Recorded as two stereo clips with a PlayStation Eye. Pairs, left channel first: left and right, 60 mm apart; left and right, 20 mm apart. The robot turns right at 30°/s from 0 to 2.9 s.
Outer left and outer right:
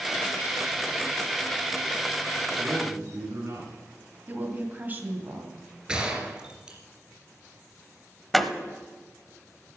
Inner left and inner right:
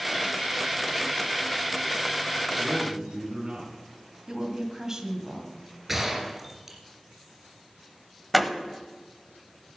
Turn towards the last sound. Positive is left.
turn(degrees=0)  # may be behind; listen again after turning